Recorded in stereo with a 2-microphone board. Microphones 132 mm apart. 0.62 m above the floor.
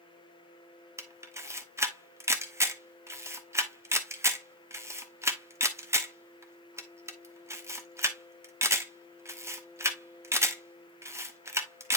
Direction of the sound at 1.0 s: 20° right (ahead or behind).